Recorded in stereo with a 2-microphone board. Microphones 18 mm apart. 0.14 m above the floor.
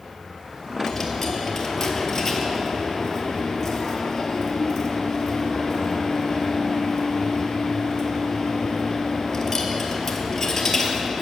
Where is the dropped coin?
20° left (ahead or behind), 1.2 m.